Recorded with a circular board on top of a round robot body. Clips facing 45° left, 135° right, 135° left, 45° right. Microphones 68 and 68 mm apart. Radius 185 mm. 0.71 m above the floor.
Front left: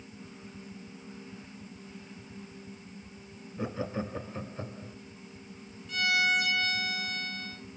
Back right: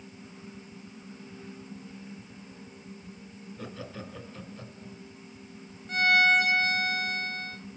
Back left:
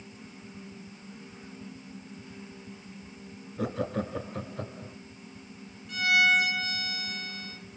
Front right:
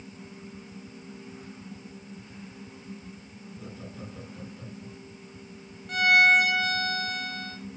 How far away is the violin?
About 2.5 m.